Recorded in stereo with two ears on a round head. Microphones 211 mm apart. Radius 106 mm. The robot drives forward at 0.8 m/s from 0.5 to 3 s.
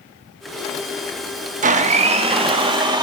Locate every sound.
1.6 s a blender: 35° right (ahead or behind), 1.4 m; by 3.0 s 20° right (ahead or behind), 2.5 m